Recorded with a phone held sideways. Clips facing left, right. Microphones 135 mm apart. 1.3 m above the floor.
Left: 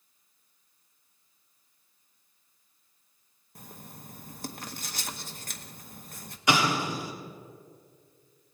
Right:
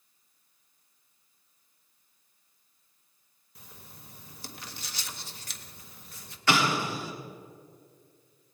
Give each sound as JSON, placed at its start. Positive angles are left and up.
{"t": 3.5, "sound": "writing", "side_deg": 50, "distance_m": 0.8}
{"t": 6.5, "sound": "an explosion", "side_deg": 15, "distance_m": 1.7}